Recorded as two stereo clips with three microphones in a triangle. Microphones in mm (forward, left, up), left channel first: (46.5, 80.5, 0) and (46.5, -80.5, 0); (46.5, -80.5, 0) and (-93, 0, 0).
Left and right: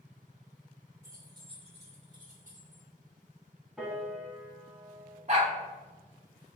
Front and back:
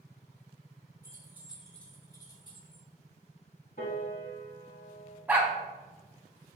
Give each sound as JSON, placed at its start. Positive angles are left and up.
{"t": 1.0, "sound": "keys jangling", "azimuth_deg": -155, "distance_m": 1.1}
{"t": 3.8, "sound": "a piano", "azimuth_deg": -5, "distance_m": 1.2}
{"t": 5.3, "sound": "a dog barking", "azimuth_deg": -130, "distance_m": 0.8}